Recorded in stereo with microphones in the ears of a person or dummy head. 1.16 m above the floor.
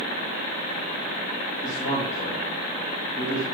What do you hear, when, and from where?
1.6 s a man speaking: 45° left (ahead or behind), 1.7 m